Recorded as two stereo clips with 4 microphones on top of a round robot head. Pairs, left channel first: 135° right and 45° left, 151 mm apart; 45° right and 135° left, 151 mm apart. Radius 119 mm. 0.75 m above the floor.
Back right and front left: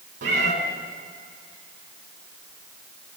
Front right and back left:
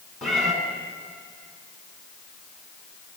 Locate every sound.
0.2 s a cat meowing: 45° left, 4.5 m